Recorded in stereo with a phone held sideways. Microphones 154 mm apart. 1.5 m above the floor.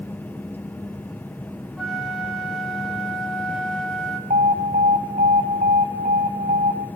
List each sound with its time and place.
0.0 s a fan: 10° left (ahead or behind), 0.9 m
1.8 s a flute: centre (ahead or behind), 2 m
4.3 s an alarm: 50° right (ahead or behind), 3 m